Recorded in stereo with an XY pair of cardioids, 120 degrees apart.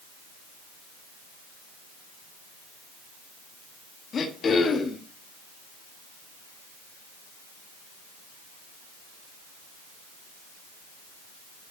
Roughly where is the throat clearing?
Ahead left.